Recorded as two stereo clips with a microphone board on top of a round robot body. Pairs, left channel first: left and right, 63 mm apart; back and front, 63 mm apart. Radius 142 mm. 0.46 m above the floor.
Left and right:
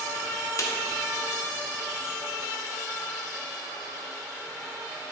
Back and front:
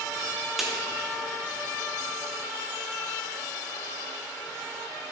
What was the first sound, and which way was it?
A snare drum, 85° left.